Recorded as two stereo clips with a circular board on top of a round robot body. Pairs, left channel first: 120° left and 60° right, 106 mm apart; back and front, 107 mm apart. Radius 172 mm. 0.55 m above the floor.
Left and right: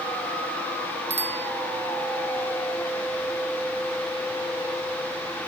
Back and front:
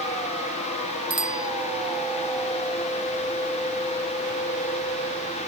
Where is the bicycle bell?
40° right.